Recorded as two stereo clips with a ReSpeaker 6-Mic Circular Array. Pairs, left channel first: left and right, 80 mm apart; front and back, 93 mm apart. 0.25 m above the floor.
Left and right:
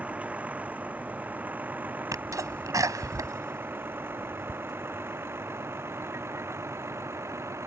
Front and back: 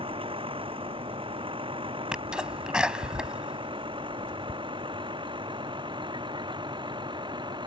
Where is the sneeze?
105° right.